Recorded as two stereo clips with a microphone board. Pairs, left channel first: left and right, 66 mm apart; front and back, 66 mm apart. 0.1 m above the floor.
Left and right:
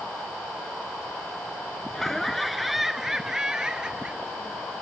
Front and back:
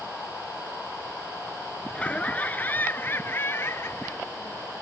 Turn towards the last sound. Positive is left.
turn(degrees=-25)